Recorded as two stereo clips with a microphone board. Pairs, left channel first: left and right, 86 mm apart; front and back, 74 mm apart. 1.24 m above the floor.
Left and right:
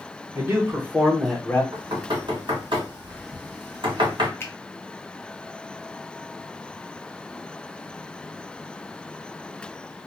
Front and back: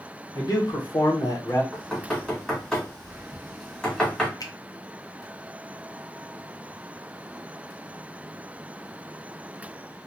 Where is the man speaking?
30° right, 1.2 m; by 1.6 s 30° left, 0.6 m.